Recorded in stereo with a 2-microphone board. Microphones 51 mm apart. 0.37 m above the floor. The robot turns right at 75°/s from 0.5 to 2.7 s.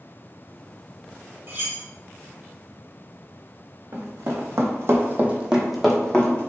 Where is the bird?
I don't hear a bird.